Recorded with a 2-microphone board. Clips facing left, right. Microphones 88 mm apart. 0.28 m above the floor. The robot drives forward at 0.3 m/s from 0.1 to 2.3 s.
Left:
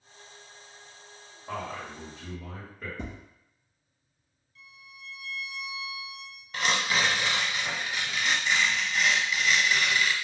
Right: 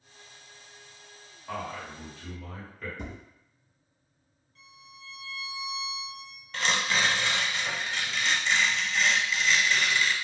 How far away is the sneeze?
No sneeze in this recording.